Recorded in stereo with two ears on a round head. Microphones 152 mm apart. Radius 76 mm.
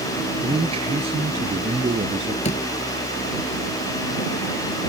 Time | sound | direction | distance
0.4 | a man speaking | 35° right (ahead or behind) | ?
2.5 | a door slam | 40° left (ahead or behind) | ?